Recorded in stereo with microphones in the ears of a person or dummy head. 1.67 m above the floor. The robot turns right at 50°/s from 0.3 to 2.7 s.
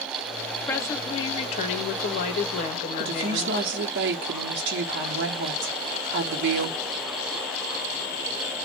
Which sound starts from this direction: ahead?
A woman speaking, at 0.7 s.